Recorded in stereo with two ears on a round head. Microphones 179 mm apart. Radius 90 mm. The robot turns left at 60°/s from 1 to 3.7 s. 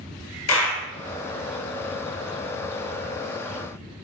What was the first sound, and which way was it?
A clap, 75° left (ahead or behind).